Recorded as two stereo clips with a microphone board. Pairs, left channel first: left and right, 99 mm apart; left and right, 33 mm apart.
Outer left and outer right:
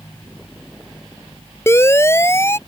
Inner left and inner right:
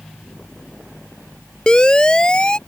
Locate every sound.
1.7 s a siren: 25° left (ahead or behind)